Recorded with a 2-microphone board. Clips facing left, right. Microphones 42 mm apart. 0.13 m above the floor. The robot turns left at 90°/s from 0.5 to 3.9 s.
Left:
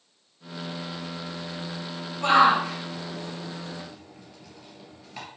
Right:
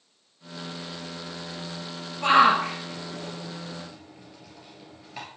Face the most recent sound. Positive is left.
turn(degrees=0)  # may be behind; listen again after turning